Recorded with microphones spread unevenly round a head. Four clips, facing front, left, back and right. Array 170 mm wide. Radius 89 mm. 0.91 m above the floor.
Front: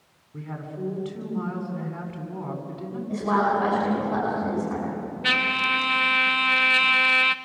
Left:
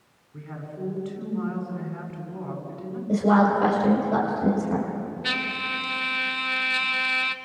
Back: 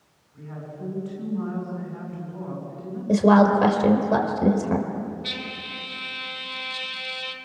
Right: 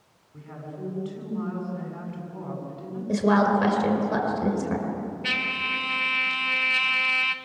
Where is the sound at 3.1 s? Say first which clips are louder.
Left 1 dB, back 7 dB; 165° right, 5 m.